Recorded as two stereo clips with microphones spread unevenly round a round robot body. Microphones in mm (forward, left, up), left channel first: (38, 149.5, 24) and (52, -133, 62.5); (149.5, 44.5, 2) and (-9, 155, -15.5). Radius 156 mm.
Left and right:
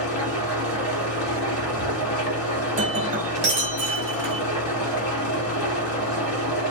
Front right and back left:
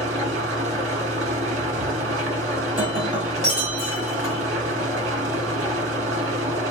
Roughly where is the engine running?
Behind left.